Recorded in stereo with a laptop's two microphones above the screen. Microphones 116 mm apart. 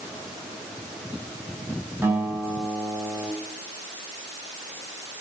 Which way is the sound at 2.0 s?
20° right (ahead or behind).